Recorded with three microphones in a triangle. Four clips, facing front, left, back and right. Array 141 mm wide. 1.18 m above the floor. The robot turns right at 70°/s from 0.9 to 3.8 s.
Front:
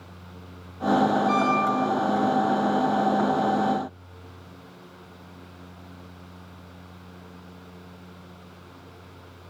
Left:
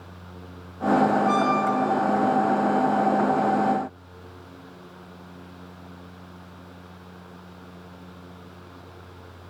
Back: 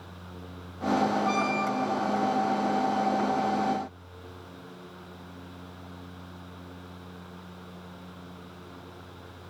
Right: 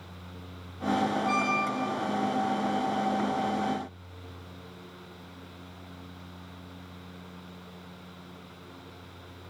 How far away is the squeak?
About 4.5 m.